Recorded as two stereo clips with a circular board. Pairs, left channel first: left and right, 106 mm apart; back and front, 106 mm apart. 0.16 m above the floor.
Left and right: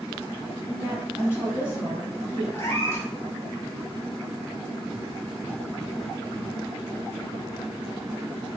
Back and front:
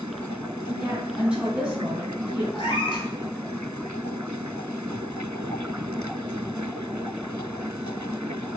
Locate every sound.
0.7 s a woman speaking: 65° left, 1.4 m
2.5 s a cat meowing: 155° left, 0.8 m